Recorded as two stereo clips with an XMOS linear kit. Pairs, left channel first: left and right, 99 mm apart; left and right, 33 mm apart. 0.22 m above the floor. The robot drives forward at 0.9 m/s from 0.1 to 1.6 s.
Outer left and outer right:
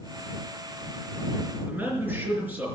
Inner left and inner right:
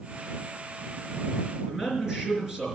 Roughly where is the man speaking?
Centre.